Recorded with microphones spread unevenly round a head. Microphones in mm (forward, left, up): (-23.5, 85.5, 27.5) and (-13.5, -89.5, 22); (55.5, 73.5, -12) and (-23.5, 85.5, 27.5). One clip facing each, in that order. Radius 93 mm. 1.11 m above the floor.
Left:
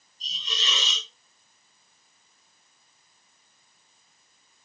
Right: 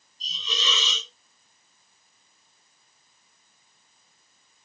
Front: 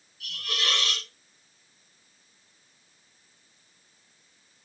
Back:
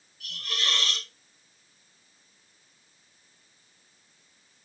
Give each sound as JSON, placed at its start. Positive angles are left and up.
{"t": 0.2, "sound": "a hiss", "azimuth_deg": -60, "distance_m": 2.0}